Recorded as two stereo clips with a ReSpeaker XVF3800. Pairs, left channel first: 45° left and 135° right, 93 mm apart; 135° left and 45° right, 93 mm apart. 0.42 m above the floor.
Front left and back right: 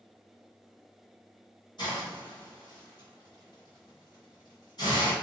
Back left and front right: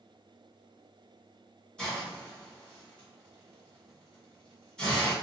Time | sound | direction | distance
1.8 | a hiss | 55° left | 1.9 m